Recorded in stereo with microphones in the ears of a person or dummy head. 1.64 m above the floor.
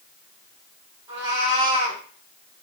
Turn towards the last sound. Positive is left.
turn(degrees=-25)  # may be behind; listen again after turning